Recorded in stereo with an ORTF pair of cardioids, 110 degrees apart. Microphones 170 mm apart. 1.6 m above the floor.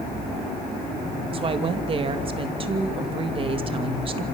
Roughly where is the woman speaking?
Ahead right.